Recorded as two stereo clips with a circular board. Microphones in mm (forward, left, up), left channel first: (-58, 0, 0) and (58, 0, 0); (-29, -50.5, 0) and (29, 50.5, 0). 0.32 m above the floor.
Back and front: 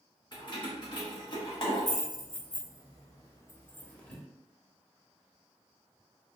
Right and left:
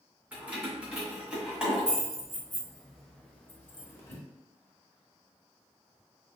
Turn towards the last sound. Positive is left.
turn(degrees=-100)